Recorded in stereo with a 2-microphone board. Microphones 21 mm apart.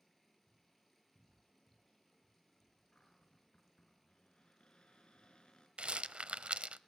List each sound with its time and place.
0.0 s running water: centre (ahead or behind), 8 m
2.9 s a cupboard door: 50° left (ahead or behind), 4.5 m
5.8 s a rattle: 80° right, 0.7 m